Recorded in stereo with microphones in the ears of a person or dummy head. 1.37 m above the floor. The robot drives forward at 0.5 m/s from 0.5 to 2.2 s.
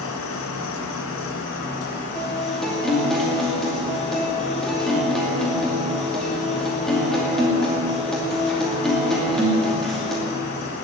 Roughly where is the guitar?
Centre.